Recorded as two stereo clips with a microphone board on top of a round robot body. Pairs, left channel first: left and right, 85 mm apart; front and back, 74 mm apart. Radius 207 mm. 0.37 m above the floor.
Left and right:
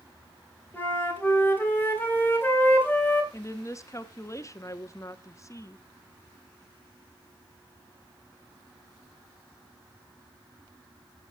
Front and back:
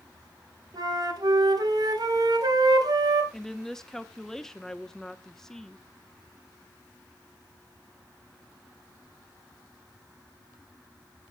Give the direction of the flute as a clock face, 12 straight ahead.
7 o'clock.